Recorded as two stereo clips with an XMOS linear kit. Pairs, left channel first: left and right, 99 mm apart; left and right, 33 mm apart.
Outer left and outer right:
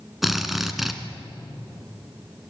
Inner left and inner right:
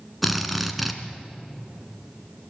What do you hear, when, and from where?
0.2 s a drill: centre (ahead or behind), 1.7 m